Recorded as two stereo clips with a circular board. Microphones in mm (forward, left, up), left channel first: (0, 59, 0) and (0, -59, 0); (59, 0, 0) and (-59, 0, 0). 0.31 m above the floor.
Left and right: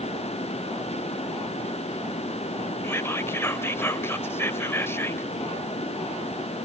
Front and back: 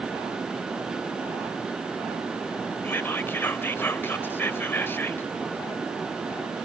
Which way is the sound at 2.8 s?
50° left.